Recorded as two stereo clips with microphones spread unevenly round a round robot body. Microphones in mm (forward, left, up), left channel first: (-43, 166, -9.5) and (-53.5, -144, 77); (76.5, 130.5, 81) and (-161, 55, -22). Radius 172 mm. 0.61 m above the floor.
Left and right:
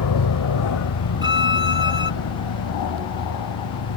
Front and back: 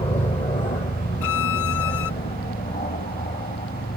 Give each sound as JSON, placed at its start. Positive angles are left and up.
{"t": 0.0, "sound": "an aircraft", "azimuth_deg": 85}
{"t": 1.2, "sound": "a violin", "azimuth_deg": -10}